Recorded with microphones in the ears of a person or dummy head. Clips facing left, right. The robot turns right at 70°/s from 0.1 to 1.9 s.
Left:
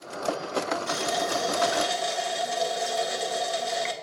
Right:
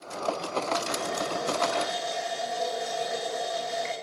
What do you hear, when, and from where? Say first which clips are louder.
0.9 s a running tap: left 3 dB; 65° left, 2 m; by 3.9 s 135° left, 2 m